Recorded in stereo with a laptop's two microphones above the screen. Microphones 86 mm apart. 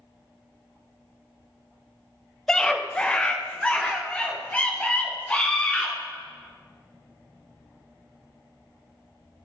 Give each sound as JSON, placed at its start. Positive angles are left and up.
{"t": 2.5, "sound": "a scream", "side_deg": 10, "distance_m": 0.8}